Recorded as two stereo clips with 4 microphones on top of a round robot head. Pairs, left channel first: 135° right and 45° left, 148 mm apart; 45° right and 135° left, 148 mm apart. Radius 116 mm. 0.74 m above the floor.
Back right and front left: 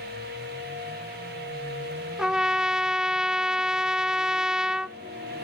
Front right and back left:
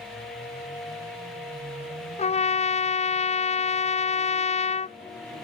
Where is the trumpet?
40° right.